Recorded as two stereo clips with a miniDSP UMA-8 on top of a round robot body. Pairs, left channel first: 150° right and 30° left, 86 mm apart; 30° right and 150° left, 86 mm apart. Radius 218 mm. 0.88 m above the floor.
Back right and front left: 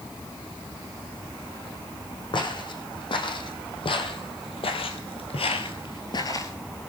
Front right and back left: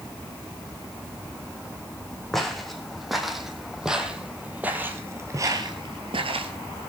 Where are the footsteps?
115° right, 3.5 m; by 6.5 s 150° left, 1.3 m.